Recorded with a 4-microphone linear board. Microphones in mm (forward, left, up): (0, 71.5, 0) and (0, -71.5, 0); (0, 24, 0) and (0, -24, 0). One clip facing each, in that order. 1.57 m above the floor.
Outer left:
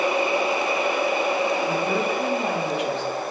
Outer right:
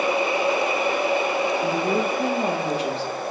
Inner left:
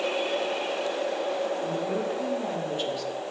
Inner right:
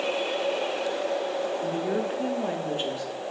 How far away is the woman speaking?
About 1.2 m.